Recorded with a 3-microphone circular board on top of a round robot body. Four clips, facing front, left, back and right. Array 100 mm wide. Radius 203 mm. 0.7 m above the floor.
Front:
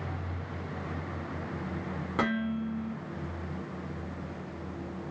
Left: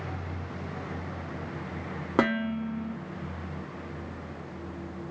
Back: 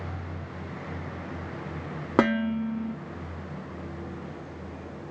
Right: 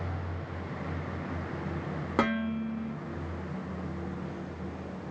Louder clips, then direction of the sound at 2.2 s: Left 3 dB, back 7 dB; 160° left.